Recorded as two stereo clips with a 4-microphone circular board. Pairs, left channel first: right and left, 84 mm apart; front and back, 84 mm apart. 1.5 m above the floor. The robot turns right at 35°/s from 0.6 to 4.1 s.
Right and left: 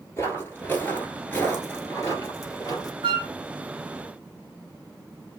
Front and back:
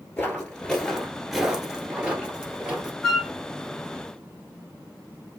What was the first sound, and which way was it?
Footsteps, 55° right.